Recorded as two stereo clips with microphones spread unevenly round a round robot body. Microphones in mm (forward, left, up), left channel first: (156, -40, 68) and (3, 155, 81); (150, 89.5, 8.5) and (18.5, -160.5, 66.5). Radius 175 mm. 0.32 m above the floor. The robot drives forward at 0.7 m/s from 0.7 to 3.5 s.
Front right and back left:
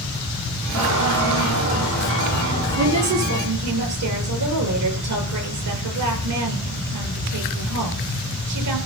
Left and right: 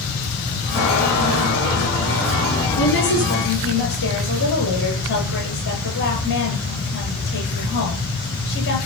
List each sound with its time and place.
0.7 s a squeak: 120° left, 7.5 m; by 3.1 s 130° left, 8.5 m
2.8 s a woman speaking: 115° left, 7.5 m; by 8.8 s 120° left, 7.5 m